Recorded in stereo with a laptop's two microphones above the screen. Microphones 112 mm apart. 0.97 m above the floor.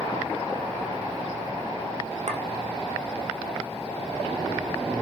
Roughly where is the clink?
Right.